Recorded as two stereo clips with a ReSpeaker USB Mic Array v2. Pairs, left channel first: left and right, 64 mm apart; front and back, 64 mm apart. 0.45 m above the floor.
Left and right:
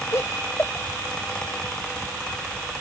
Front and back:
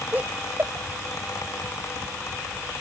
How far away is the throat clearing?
I don't hear throat clearing.